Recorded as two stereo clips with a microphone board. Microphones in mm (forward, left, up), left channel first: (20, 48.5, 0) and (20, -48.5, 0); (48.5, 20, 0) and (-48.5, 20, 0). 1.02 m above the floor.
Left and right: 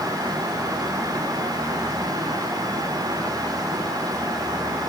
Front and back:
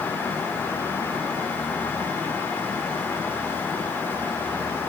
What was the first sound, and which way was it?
Only background noise.